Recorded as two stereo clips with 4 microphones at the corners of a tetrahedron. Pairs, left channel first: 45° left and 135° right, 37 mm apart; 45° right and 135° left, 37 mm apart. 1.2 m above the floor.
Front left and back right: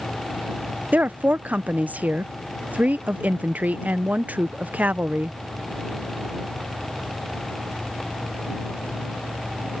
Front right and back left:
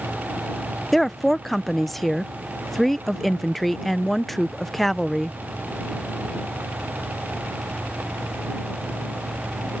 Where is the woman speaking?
130° right.